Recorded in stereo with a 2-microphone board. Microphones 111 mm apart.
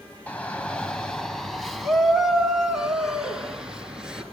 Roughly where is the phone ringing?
No phone ringing in this recording.